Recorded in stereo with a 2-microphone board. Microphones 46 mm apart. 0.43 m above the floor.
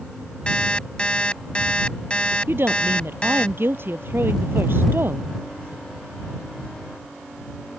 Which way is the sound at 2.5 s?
60° right (ahead or behind).